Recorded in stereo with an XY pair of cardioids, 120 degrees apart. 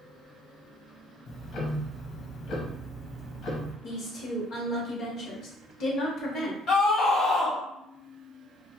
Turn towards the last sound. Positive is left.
turn(degrees=65)